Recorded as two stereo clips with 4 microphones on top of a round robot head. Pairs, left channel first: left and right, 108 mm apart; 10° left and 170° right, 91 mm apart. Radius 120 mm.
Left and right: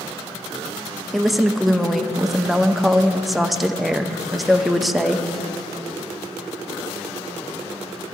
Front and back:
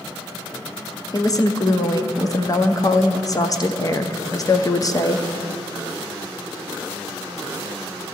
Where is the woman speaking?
Straight ahead, 0.9 m.